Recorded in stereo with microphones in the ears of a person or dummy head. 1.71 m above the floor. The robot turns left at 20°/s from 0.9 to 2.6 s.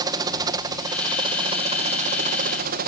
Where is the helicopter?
25° right; by 2.9 s 60° right.